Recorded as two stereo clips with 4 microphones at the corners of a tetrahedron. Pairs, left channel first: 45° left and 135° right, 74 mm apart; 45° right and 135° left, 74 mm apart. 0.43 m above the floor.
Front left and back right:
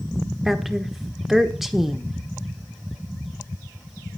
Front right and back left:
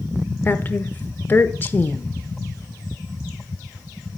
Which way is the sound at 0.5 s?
55° right.